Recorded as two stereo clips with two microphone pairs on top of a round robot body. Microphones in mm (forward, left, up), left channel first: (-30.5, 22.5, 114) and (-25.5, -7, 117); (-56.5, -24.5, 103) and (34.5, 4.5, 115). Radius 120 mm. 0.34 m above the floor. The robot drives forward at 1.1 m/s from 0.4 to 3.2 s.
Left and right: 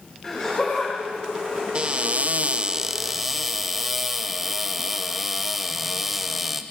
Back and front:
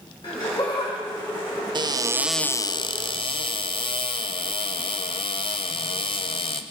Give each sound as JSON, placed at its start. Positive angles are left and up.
{"t": 0.2, "sound": "laughter", "azimuth_deg": 165, "distance_m": 3.5}
{"t": 1.8, "sound": "a cupboard door", "azimuth_deg": -20, "distance_m": 0.8}